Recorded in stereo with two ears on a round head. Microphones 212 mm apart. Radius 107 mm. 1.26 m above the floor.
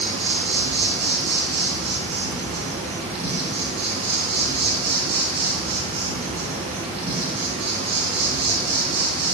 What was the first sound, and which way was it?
An insect, 25° right (ahead or behind).